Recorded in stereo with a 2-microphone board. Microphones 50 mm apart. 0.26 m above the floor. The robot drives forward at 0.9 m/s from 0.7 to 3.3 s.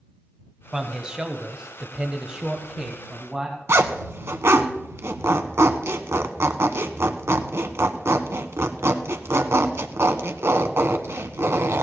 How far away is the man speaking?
About 1.3 m.